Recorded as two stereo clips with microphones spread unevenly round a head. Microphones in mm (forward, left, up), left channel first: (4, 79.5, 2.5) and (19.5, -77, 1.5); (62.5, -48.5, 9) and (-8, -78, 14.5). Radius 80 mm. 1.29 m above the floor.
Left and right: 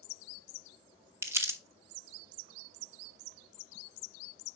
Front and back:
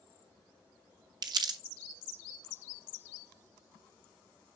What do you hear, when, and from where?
1.2 s crumpling: 160° right, 0.7 m